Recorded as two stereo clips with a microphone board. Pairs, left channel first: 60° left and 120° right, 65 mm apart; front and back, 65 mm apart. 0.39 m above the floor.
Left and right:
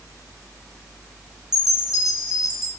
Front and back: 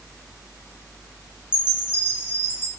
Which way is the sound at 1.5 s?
40° right.